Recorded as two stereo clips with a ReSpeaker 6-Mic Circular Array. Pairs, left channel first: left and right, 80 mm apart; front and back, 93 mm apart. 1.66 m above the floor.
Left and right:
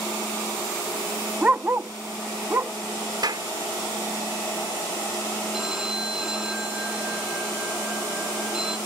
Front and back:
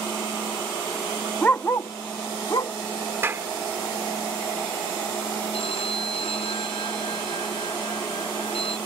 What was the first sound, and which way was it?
A dog barking, 45° right.